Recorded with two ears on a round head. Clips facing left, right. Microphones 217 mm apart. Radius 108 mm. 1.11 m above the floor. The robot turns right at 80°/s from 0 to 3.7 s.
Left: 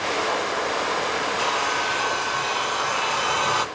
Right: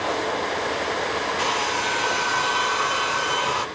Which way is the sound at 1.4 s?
150° right.